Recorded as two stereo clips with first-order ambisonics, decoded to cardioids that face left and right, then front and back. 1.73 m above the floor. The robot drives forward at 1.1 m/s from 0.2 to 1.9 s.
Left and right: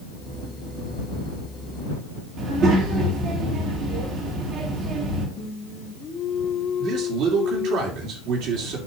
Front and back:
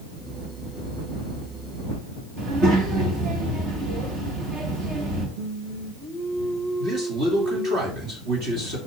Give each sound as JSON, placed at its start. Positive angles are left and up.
{"t": 2.4, "sound": "a child speaking", "azimuth_deg": -135, "distance_m": 2.0}
{"t": 5.4, "sound": "singing", "azimuth_deg": 135, "distance_m": 1.1}
{"t": 6.8, "sound": "a man speaking", "azimuth_deg": -125, "distance_m": 3.0}